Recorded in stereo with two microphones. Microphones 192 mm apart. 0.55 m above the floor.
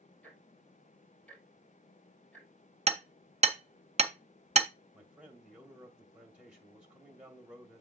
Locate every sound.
0.2 s ticking: 5° left (ahead or behind), 3.5 m
2.9 s hammering: 35° right (ahead or behind), 0.8 m
4.9 s a man speaking: 5° right (ahead or behind), 2 m